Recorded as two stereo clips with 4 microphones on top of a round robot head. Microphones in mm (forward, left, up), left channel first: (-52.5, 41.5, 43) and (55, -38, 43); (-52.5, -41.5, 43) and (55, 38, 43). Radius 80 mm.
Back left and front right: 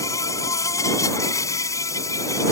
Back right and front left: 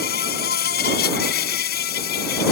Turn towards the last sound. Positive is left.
turn(degrees=-150)